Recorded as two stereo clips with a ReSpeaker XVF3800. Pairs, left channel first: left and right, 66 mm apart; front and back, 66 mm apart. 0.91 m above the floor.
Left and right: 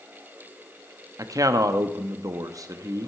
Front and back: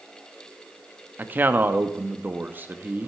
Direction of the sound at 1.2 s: 115° right.